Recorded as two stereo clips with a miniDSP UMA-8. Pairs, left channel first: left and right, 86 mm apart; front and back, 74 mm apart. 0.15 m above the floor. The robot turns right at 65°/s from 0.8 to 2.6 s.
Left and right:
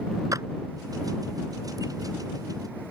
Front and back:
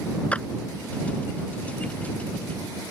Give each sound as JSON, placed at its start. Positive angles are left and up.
{"t": 0.3, "sound": "a clap", "azimuth_deg": -65}